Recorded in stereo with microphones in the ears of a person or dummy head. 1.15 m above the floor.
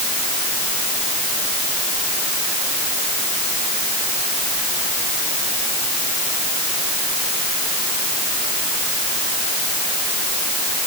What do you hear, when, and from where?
Only background noise.